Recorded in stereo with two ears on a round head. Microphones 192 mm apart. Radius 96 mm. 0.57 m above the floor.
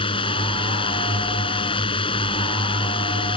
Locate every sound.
0.0 s a drone: 25° left (ahead or behind)